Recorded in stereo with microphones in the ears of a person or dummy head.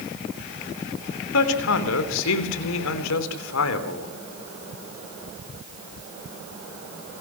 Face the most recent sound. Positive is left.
turn(degrees=85)